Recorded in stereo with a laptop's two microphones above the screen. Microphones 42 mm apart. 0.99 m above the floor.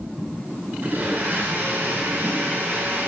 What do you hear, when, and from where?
0.8 s a blender: 50° right (ahead or behind), 6 m